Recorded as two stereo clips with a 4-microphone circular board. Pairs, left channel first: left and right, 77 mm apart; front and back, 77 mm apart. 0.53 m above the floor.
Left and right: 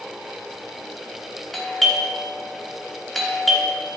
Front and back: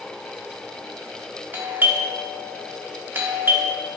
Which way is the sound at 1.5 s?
175° left.